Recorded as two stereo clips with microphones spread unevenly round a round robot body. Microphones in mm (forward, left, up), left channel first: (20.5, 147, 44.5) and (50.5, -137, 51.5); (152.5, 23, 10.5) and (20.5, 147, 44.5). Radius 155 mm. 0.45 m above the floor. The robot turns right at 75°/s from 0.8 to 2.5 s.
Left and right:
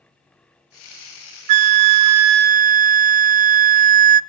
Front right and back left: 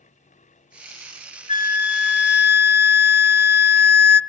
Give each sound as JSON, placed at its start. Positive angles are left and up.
{"t": 1.5, "sound": "a flute", "azimuth_deg": -95, "distance_m": 0.5}